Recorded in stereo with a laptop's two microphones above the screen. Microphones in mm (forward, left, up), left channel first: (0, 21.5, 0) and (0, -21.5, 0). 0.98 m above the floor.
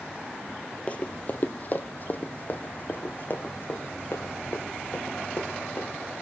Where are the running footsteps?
30° left (ahead or behind), 1.3 m; by 5.9 s 45° left (ahead or behind), 5.5 m.